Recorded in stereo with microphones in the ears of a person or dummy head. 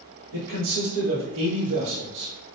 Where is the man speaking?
85° right, 1.6 m; by 2.6 s 50° right (ahead or behind), 1.6 m.